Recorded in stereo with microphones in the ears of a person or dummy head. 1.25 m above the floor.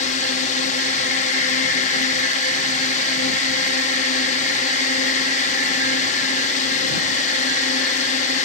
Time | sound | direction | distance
0.0 | a drone | 45° left (ahead or behind) | ?